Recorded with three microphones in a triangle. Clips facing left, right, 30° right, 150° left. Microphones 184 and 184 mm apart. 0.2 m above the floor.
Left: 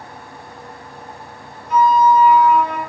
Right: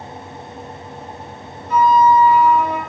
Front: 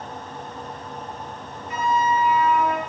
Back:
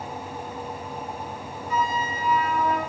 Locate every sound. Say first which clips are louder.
1.7 s a flute: even, front 5 dB; 100° left, 0.7 m